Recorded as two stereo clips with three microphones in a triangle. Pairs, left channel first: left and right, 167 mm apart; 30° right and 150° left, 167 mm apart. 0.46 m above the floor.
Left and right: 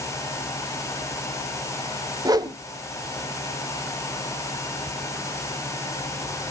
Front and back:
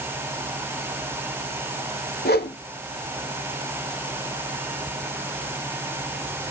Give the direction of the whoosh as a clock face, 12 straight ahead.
1 o'clock.